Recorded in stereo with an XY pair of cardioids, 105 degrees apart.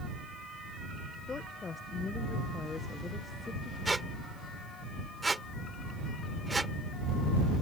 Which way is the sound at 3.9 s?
15° right.